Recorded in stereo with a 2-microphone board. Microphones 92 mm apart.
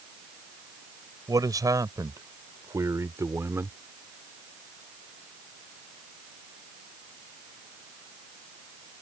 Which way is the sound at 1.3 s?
40° right (ahead or behind).